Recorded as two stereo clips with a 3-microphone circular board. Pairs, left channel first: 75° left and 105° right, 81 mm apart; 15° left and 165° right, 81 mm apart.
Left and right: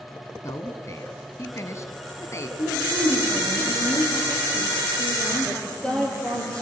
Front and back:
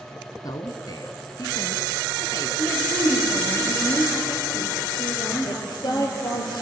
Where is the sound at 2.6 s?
65° left, 6.5 m.